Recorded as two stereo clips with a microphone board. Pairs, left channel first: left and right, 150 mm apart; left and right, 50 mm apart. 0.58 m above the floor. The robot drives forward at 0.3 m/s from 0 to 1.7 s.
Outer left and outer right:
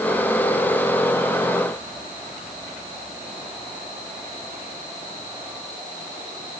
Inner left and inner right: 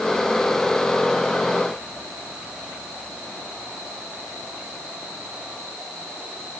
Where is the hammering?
No hammering in this recording.